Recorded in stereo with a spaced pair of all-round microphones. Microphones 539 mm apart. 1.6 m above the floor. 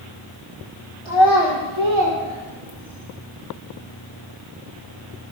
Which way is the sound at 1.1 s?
60° right (ahead or behind).